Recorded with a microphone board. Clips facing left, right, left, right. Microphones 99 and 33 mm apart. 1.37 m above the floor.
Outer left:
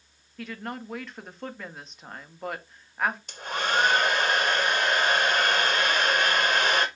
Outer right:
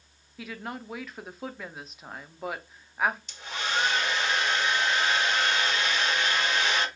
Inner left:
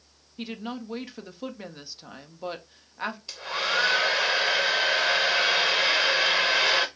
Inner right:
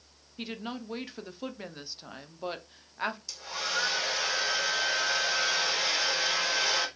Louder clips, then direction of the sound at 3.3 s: Outer left 4 dB, inner left 6 dB; 50° left (ahead or behind).